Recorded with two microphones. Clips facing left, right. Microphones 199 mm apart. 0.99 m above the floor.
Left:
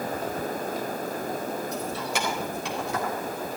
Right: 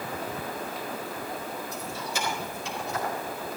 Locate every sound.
1.7 s keys jangling: 75° left (ahead or behind), 4 m; by 3.1 s 80° left, 3 m